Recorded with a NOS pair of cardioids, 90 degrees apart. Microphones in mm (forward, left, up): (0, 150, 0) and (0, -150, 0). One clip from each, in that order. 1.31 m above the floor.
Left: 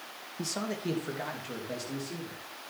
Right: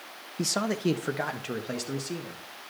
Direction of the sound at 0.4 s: 30° right.